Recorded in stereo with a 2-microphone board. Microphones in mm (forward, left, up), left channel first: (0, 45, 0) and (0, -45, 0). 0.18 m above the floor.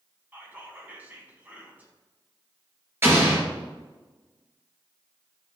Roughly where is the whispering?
Centre.